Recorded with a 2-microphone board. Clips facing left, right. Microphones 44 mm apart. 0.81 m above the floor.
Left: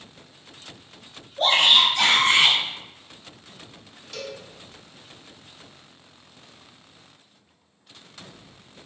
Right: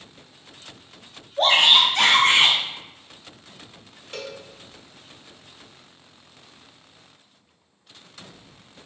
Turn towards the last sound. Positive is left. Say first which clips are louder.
# even
turn(degrees=-30)  # may be behind; listen again after turning